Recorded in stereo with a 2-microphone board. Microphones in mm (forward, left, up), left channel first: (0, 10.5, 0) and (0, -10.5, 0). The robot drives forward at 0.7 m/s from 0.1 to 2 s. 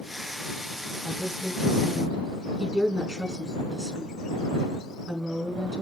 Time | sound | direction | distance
1.0 | a woman speaking | 25° right (ahead or behind) | 5 m